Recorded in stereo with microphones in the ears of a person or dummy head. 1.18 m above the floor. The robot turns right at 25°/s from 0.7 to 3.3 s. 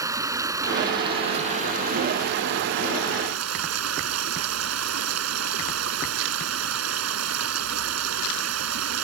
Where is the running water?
165° right; by 9.0 s 100° right.